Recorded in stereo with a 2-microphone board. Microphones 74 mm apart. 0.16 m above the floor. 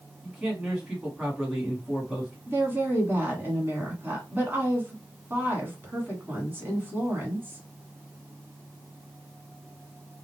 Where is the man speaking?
10° right (ahead or behind), 1.2 m.